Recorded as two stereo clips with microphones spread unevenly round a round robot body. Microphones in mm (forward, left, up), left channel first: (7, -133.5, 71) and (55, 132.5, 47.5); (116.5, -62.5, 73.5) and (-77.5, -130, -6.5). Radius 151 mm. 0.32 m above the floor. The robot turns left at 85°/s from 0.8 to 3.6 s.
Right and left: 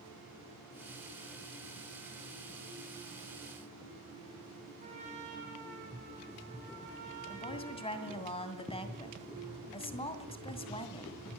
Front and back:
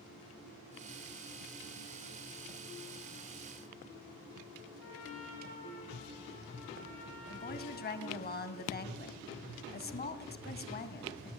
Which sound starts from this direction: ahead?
A trumpet, at 4.8 s.